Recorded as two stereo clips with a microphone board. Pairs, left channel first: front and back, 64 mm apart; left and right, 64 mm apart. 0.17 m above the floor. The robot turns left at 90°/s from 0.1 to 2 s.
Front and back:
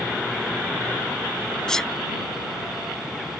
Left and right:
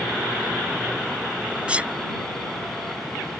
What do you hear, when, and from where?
1.7 s a sneeze: 60° right; by 1.9 s 80° right